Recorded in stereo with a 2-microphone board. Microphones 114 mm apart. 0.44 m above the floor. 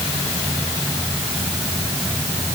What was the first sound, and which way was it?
Only background noise.